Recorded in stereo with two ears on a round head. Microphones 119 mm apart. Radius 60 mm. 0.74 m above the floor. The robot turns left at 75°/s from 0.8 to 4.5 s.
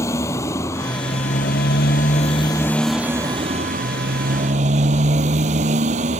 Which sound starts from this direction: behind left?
A motorcycle, at 0.0 s.